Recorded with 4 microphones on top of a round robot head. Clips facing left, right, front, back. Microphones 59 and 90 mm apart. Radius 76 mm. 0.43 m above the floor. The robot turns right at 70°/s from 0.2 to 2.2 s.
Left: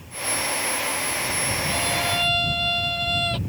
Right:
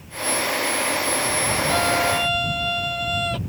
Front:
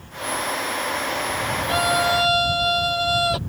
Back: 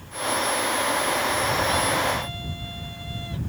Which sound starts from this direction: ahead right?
A violin, at 1.7 s.